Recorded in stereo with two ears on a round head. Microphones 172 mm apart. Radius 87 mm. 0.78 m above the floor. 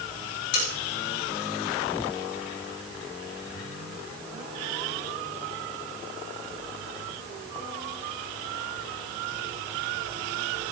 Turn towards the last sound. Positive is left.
turn(degrees=75)  # may be behind; listen again after turning